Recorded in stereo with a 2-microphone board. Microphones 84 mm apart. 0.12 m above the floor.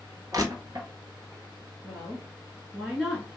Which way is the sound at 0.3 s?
50° right (ahead or behind).